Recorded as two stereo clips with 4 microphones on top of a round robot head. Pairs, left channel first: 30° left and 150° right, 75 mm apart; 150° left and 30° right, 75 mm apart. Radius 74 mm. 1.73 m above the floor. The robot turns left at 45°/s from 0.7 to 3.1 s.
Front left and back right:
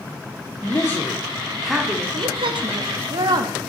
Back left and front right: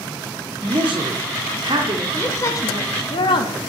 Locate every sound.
0.6 s a man speaking: 20° right, 0.9 m; by 2.0 s 80° right, 0.9 m
2.1 s a woman speaking: 140° right, 0.8 m; by 3.7 s 175° left, 0.8 m